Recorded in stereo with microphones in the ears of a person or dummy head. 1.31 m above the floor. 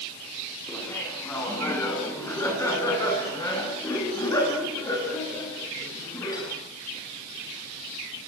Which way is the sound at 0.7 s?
15° left (ahead or behind).